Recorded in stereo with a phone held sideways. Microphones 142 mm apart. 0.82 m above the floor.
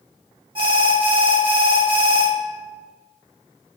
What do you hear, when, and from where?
0.6 s an alarm: 40° right (ahead or behind), 1.7 m